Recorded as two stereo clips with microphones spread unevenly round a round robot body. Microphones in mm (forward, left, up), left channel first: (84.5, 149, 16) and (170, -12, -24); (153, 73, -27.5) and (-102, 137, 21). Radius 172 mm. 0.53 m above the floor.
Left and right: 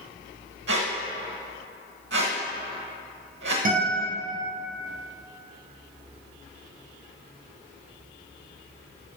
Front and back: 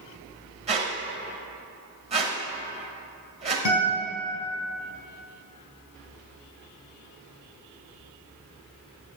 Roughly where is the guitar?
Ahead.